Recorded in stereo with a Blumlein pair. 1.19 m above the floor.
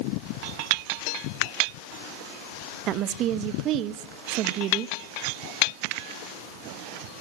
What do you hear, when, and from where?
2.9 s a woman speaking: 35° right, 1.0 m